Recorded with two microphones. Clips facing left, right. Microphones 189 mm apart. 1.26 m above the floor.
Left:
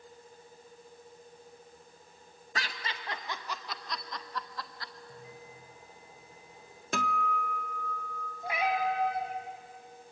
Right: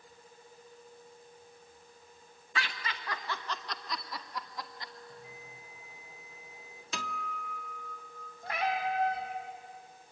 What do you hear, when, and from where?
2.5 s laughter: 40° left (ahead or behind), 1.2 m; by 4.9 s 20° right (ahead or behind), 1.7 m
5.1 s a bell: 20° left (ahead or behind), 8 m
6.9 s a guitar: 55° left (ahead or behind), 0.7 m
8.4 s a cat meowing: 15° left (ahead or behind), 3 m